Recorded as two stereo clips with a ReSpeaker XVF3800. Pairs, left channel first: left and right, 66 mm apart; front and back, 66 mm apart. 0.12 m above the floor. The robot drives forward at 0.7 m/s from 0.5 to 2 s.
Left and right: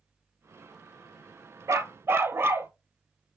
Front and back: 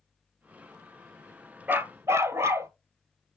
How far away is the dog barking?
About 0.6 m.